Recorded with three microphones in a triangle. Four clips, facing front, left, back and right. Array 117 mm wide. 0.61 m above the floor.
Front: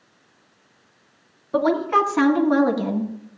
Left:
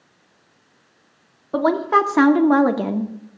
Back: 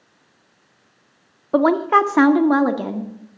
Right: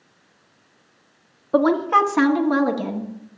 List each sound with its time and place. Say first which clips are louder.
1.5 s a woman speaking: right 1 dB, back 4 dB; straight behind, 1.5 m; by 3.1 s 105° left, 1.5 m